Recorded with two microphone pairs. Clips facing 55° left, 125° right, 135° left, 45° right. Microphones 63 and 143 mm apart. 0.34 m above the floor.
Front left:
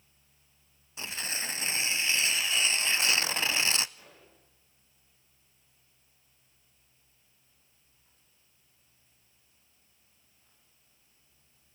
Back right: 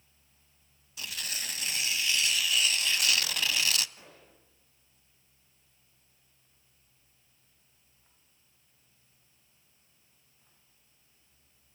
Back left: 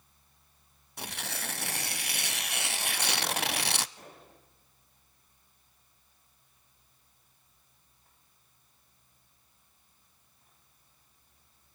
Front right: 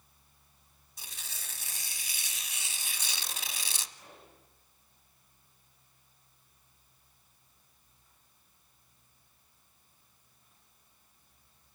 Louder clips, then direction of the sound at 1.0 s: Front left 3 dB, back left 13 dB; 110° left.